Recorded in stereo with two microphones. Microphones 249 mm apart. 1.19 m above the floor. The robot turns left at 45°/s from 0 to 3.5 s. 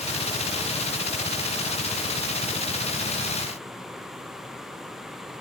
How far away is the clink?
No clink in this recording.